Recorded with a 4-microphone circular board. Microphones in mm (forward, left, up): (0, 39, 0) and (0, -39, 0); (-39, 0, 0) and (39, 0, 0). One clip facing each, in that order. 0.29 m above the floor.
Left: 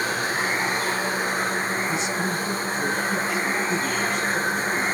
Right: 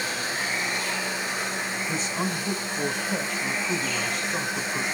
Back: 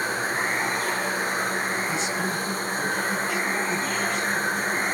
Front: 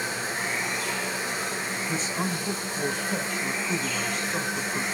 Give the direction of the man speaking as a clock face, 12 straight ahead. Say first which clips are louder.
Left 3 dB, back 2 dB; 2 o'clock.